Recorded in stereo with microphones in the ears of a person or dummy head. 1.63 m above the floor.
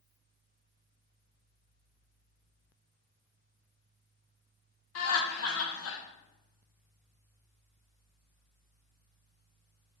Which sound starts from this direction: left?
Laughter, at 5.0 s.